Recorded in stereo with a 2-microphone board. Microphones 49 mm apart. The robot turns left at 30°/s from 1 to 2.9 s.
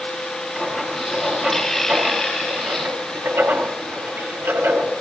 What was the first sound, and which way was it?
Writing, centre (ahead or behind).